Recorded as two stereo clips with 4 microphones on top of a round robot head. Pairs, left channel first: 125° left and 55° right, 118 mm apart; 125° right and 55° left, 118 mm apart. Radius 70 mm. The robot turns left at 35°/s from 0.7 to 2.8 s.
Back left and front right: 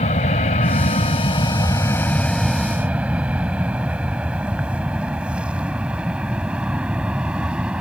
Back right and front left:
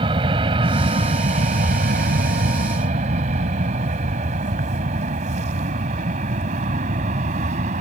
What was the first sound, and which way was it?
An aircraft, 100° left.